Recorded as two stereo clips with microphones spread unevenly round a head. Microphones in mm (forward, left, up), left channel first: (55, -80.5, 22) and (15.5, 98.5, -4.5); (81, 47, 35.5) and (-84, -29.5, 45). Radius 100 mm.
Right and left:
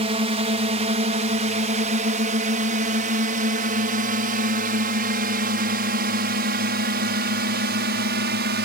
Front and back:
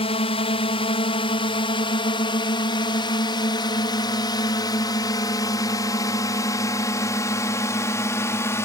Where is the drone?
65° left; by 8.7 s 95° left.